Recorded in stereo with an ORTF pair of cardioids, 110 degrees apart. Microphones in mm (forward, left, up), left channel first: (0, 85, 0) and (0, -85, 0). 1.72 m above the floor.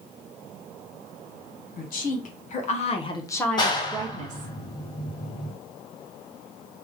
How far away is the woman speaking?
About 1.7 m.